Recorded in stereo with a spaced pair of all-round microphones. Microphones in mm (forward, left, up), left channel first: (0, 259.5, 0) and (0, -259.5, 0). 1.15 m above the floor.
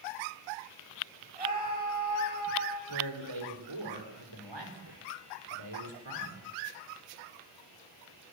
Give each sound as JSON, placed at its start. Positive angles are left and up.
{"t": 1.4, "sound": "a scream", "side_deg": -85, "distance_m": 6.5}
{"t": 2.9, "sound": "a man speaking", "side_deg": -50, "distance_m": 3.5}